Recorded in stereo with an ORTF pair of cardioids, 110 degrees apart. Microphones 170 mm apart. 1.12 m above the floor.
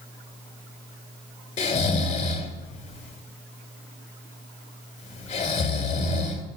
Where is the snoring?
40° left, 2 m.